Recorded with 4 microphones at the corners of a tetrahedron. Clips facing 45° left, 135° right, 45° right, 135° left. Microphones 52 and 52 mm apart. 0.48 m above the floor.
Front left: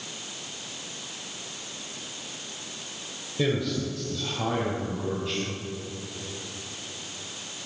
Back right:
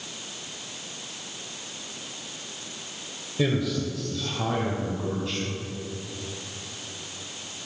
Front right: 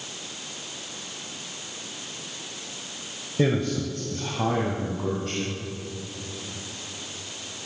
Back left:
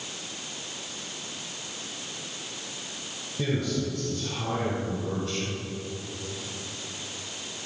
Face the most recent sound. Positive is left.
turn(degrees=-40)